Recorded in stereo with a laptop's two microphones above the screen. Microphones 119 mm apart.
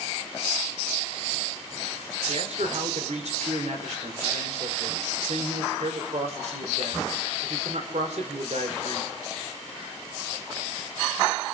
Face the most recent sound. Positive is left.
turn(degrees=-65)  # may be behind; listen again after turning